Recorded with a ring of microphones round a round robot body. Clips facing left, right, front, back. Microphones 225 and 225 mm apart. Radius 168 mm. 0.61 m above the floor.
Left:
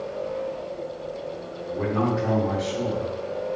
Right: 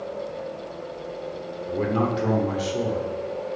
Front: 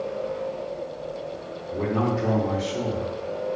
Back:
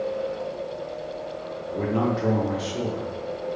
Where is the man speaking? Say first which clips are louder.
Even, even; 110° right, 0.7 m.